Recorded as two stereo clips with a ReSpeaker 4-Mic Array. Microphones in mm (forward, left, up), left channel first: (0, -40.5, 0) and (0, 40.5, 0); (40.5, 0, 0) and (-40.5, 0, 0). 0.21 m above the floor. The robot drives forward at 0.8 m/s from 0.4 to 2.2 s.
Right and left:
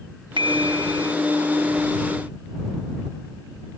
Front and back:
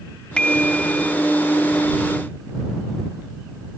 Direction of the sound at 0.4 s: 80° left.